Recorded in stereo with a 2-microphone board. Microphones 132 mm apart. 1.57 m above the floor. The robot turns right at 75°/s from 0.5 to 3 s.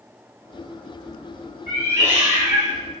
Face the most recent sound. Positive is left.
turn(degrees=0)